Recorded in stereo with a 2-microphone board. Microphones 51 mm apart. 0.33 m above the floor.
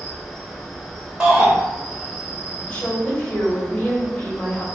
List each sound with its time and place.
0.0 s an insect: 5° left (ahead or behind), 1.2 m
1.2 s a shout: 15° right (ahead or behind), 0.9 m
2.7 s a woman speaking: 25° left (ahead or behind), 1.6 m